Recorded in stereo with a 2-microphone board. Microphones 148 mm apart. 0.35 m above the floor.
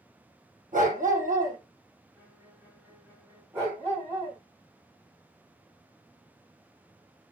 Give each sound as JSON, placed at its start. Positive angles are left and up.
{"t": 0.7, "sound": "a dog barking", "side_deg": -60, "distance_m": 3.5}
{"t": 2.1, "sound": "a violin", "side_deg": -15, "distance_m": 2.5}
{"t": 3.5, "sound": "a dog barking", "side_deg": -20, "distance_m": 6.5}